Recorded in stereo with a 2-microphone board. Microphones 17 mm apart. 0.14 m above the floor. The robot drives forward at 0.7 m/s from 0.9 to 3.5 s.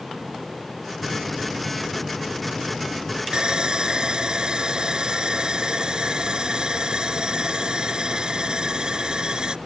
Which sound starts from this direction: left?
A microwave, at 1.0 s.